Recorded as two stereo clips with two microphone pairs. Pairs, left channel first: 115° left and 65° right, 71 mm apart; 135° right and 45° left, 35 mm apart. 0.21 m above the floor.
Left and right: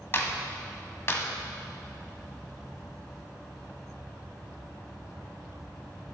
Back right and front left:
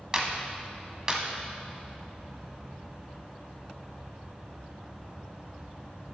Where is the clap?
105° left, 0.9 m.